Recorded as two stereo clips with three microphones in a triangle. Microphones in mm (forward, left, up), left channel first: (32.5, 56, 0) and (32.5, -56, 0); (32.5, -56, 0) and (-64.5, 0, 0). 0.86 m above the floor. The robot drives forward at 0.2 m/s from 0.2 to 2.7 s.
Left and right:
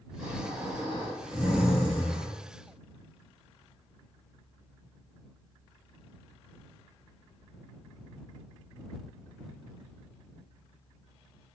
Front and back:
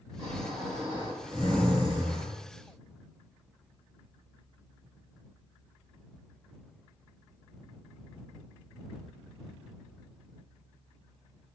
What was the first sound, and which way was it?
Snoring, 165° right.